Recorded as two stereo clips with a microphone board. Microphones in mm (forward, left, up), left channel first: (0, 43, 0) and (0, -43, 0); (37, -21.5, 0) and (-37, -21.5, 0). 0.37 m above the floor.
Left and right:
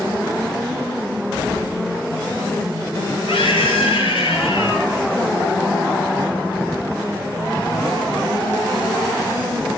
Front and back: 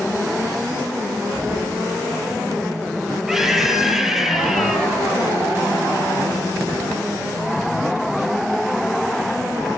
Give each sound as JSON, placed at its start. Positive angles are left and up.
{"t": 3.3, "sound": "a scream", "azimuth_deg": 95, "distance_m": 7.0}